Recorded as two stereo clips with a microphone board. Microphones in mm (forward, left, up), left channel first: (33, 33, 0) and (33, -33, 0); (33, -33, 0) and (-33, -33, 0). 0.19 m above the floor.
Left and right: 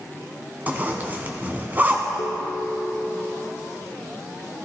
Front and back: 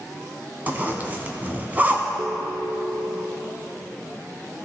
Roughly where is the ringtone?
Left.